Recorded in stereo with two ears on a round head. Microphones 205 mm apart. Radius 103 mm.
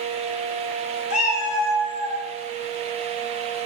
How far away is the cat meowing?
About 2.5 m.